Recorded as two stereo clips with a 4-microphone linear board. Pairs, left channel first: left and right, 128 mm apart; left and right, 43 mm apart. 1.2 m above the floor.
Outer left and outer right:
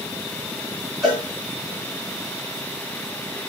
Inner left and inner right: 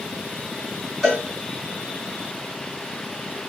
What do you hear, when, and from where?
1.0 s a cowbell: centre (ahead or behind), 3.5 m